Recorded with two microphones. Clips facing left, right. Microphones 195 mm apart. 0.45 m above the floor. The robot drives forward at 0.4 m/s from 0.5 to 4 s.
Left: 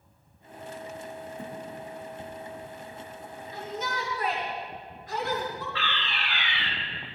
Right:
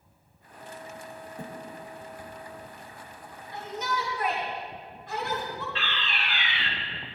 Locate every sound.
1.4 s a thud: 75° right (ahead or behind), 4 m
3.5 s a shout: 60° right (ahead or behind), 2.5 m
5.8 s a fire alarm: 20° right (ahead or behind), 3.5 m